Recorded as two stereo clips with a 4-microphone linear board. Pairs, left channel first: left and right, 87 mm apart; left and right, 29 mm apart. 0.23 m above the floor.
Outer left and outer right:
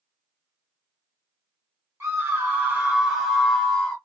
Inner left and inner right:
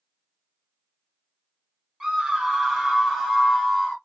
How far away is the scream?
About 1.4 m.